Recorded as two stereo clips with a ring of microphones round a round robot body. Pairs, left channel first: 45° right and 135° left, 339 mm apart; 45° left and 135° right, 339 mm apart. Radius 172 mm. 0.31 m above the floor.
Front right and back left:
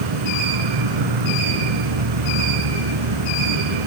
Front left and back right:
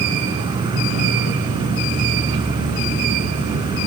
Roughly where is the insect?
Behind left.